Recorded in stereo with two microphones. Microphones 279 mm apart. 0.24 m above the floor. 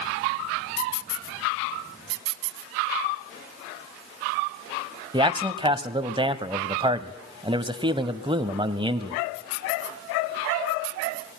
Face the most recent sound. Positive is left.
turn(degrees=-15)  # may be behind; listen again after turning